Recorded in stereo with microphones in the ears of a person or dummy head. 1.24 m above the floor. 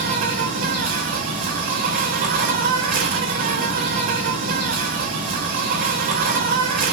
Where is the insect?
35° right (ahead or behind), 0.8 m.